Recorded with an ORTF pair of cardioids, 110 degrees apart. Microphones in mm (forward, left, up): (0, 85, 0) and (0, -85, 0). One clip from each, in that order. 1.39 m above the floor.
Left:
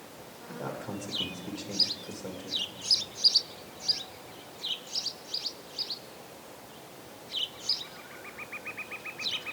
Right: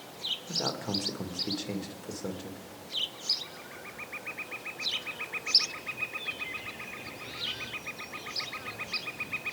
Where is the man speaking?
30° right, 2 m.